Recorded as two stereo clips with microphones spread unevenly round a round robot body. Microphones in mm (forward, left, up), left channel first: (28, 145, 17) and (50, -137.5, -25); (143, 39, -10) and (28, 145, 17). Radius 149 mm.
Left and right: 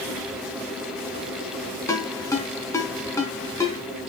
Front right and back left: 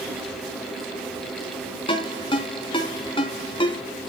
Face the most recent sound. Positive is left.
turn(degrees=15)